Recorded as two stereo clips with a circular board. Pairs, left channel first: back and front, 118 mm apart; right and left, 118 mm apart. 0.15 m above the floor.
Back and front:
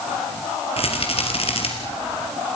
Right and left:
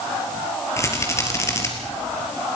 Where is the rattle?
155° right, 3.5 m.